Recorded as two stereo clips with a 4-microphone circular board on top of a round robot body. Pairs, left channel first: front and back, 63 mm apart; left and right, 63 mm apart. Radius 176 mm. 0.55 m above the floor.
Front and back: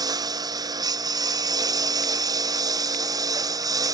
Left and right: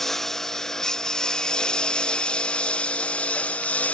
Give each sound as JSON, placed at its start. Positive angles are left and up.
{"t": 0.0, "sound": "a lawn mower", "azimuth_deg": 175}